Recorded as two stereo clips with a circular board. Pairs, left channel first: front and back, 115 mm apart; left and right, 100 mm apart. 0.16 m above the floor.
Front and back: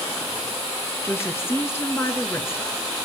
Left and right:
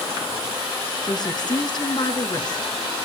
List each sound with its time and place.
1.0 s a woman speaking: 60° left, 2.5 m